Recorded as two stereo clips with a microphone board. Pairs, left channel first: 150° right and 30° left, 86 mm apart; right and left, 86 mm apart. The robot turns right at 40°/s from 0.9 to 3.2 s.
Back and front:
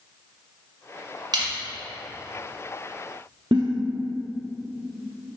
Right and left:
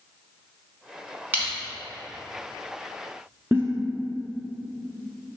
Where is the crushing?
25° left, 1.0 m; by 1.5 s 35° left, 1.0 m.